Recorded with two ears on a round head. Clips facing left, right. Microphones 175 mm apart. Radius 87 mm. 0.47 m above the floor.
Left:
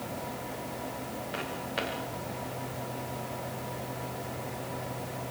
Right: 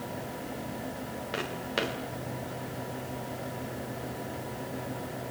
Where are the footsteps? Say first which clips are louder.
Right 4 dB; 60° right (ahead or behind), 5 m.